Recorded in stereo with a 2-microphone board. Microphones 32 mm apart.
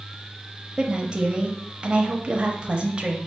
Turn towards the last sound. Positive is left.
turn(degrees=-35)  # may be behind; listen again after turning